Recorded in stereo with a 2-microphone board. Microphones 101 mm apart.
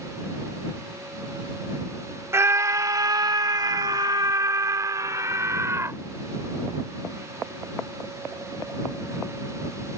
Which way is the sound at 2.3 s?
25° right (ahead or behind).